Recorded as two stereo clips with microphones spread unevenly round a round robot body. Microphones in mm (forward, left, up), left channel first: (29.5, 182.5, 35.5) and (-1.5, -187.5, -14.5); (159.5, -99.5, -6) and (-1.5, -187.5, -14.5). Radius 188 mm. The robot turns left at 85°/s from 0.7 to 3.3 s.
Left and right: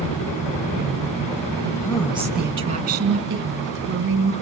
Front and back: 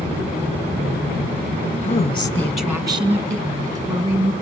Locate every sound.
1.8 s a woman speaking: 25° left, 1.6 m; by 4.3 s 100° right, 1.6 m